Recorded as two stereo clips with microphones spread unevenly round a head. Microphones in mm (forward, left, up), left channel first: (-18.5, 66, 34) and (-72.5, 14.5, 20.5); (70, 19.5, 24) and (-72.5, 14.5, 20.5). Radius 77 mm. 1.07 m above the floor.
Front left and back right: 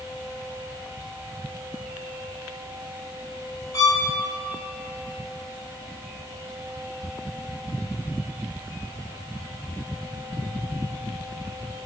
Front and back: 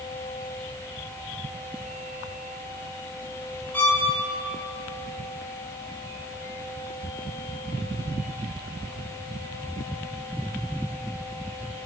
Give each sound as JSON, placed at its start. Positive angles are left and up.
{"t": 3.7, "sound": "a violin", "azimuth_deg": 80, "distance_m": 1.7}